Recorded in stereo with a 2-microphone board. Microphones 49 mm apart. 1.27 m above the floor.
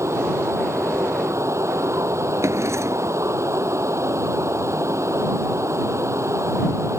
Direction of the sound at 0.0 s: 75° right (ahead or behind).